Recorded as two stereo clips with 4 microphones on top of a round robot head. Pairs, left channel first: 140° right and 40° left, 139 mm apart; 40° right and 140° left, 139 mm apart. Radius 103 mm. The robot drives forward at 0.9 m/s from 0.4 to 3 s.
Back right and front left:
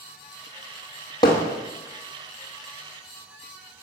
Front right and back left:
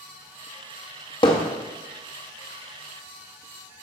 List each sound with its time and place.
1.2 s hammering: 85° right, 0.8 m; by 1.5 s 115° right, 0.8 m